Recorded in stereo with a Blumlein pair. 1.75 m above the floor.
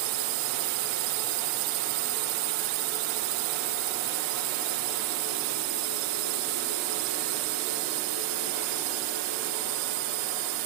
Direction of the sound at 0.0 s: 45° right.